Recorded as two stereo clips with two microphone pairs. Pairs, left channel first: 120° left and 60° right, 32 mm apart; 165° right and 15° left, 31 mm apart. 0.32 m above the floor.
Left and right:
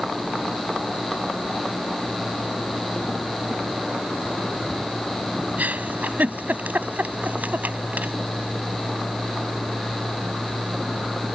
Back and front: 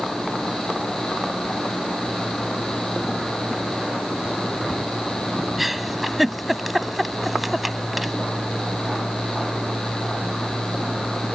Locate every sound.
5.6 s a giggle: 70° right